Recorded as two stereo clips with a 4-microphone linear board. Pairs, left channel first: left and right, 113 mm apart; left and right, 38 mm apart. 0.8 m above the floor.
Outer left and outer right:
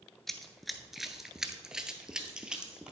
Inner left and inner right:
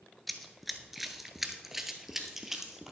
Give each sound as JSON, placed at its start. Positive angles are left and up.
{"t": 0.3, "sound": "running footsteps", "side_deg": 0, "distance_m": 0.8}